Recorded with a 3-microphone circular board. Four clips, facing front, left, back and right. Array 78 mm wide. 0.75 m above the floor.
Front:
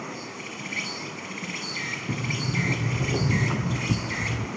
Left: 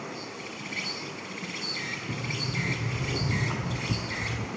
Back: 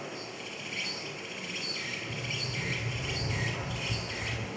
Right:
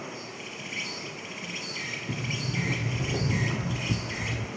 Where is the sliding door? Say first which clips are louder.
Right 2 dB, front 8 dB; 10° right, 1.0 m.